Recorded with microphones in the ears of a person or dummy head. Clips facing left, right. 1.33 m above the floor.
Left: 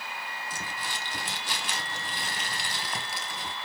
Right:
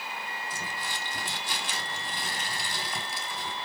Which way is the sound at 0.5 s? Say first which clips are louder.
Even; 60° left (ahead or behind).